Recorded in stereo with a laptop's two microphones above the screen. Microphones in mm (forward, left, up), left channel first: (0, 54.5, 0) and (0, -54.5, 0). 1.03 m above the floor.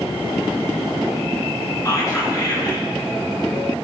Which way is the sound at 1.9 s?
30° left (ahead or behind).